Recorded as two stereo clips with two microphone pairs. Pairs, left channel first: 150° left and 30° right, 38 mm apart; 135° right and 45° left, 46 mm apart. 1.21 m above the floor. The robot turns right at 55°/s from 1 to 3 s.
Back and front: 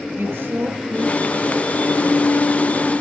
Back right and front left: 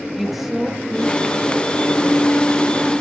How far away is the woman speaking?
About 1.9 m.